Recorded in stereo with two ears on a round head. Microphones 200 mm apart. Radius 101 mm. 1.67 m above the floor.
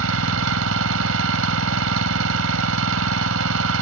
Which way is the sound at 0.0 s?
80° right.